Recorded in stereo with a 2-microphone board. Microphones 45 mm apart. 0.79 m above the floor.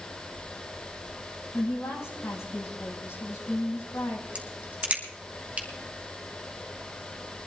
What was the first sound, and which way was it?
A woman speaking, 85° left.